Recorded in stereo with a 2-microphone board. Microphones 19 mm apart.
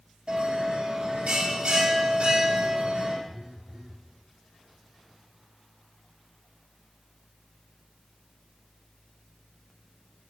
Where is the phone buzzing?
65° right (ahead or behind), 2 m.